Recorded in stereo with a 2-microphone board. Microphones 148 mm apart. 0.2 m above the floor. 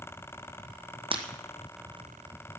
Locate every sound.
1.1 s breaking glass: 40° right (ahead or behind), 1.2 m